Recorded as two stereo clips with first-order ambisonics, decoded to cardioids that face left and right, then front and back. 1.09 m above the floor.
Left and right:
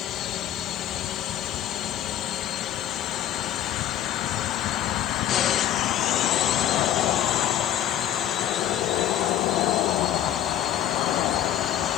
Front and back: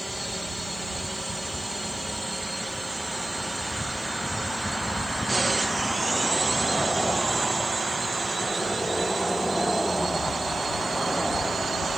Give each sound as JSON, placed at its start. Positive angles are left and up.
{"t": 0.0, "sound": "a drone", "azimuth_deg": 90}